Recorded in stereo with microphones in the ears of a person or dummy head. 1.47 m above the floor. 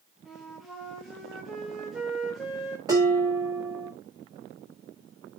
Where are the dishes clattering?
15° right (ahead or behind), 1.7 m.